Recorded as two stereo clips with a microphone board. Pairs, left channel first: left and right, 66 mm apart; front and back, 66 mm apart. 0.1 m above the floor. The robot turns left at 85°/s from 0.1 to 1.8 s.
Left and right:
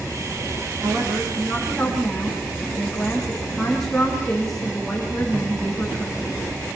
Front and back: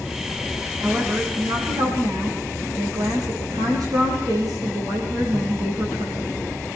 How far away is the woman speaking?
About 6 m.